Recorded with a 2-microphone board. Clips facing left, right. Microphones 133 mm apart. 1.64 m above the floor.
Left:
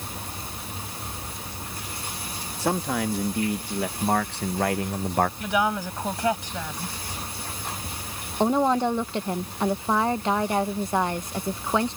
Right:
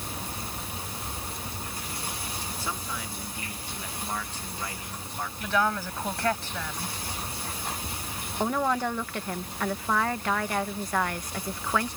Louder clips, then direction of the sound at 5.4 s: Left 2 dB; 15° left (ahead or behind).